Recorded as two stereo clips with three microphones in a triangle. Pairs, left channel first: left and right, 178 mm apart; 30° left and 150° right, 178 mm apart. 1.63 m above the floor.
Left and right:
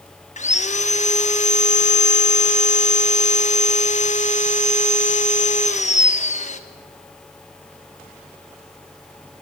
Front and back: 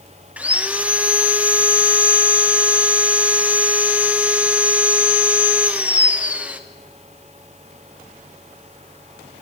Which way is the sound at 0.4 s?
130° left.